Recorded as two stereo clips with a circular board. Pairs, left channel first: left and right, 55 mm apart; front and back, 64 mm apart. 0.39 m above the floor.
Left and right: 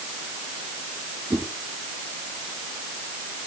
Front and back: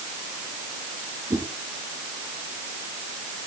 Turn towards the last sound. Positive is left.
turn(degrees=-145)